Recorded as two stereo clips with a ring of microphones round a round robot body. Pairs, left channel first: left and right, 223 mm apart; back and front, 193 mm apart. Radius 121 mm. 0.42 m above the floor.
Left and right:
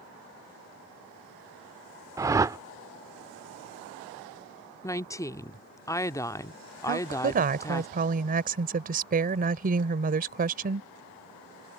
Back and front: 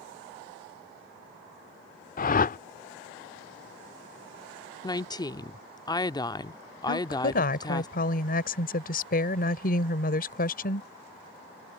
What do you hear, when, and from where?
2.2 s a whoosh: 160° right
4.8 s a woman speaking: 145° left
6.9 s a woman speaking: 140° right